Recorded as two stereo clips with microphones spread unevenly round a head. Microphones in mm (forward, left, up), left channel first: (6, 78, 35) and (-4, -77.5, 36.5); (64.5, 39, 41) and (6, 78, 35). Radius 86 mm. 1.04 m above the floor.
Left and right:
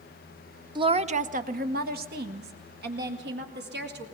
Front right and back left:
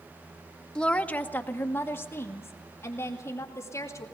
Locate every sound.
0.8 s a woman speaking: 115° right, 0.7 m; by 4.0 s 95° right, 3 m